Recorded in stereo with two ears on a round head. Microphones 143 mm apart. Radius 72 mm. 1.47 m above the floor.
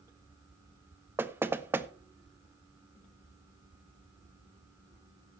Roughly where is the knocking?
Centre.